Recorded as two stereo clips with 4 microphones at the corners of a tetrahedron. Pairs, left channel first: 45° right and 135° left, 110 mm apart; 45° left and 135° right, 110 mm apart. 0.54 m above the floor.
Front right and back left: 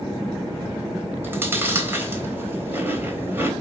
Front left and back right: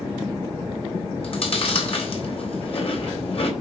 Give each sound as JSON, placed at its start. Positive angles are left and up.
{"t": 1.2, "sound": "chewing", "azimuth_deg": 65, "distance_m": 3.5}